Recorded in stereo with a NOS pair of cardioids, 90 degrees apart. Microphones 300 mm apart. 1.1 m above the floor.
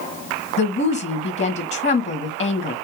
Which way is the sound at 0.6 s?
35° left.